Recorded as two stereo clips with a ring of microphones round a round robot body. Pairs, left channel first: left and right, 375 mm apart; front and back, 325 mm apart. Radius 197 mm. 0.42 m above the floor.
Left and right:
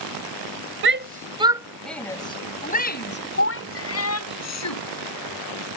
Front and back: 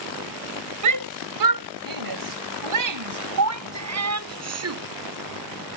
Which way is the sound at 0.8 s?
145° right.